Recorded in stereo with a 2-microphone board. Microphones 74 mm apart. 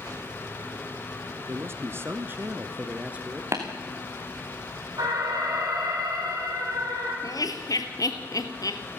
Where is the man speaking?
35° right (ahead or behind), 1.4 m; by 3.4 s 15° right (ahead or behind), 1.5 m.